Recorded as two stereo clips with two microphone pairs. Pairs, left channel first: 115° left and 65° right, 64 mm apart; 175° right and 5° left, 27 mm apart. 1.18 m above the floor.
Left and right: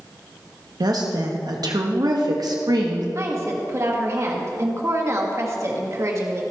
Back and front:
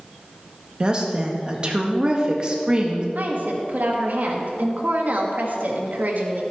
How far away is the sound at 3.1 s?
About 1.6 m.